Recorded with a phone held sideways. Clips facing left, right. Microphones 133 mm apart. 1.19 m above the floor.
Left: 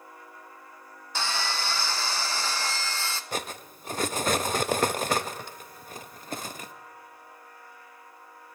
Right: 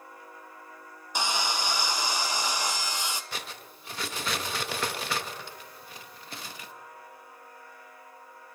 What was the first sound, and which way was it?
Sawing, 15° right (ahead or behind).